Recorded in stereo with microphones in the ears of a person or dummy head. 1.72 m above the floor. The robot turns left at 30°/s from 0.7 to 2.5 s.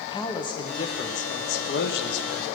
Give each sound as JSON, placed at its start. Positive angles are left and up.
{"t": 0.1, "sound": "a man speaking", "azimuth_deg": 160, "distance_m": 1.0}